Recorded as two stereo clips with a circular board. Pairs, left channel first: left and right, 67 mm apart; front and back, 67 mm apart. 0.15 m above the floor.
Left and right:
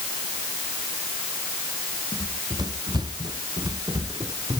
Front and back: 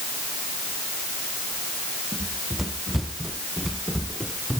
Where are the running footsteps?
95° right; by 4.6 s 85° right.